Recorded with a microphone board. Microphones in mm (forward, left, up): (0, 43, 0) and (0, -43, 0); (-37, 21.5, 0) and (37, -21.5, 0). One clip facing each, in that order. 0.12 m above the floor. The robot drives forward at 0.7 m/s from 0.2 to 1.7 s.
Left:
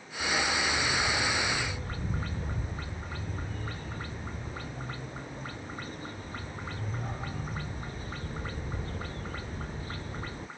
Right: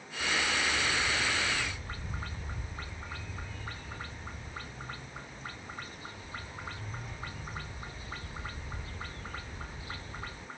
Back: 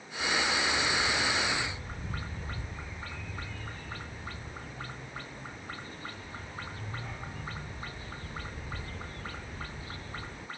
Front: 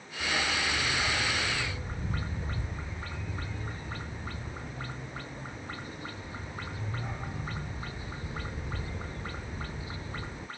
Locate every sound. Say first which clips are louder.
0.2 s a dog barking: left 2 dB, back 1 dB; 40° left; by 10.5 s 45° left